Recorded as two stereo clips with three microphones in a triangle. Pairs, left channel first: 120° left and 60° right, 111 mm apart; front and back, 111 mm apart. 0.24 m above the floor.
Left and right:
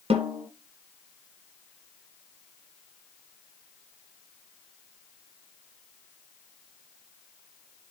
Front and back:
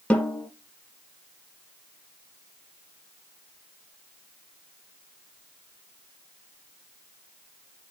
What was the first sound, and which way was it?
A snare drum, 80° right.